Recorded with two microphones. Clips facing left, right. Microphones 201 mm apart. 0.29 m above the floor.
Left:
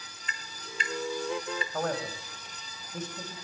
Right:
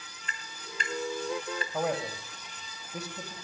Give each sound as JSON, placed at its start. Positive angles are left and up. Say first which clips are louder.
{"t": 0.3, "sound": "tapping", "louder": "even", "side_deg": -45, "distance_m": 2.5}
{"t": 1.7, "sound": "a man speaking", "louder": "right 2 dB", "side_deg": -10, "distance_m": 1.6}